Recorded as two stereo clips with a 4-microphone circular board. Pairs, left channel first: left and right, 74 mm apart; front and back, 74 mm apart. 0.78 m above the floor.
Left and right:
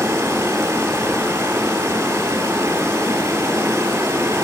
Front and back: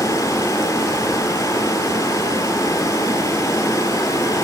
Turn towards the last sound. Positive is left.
turn(degrees=-35)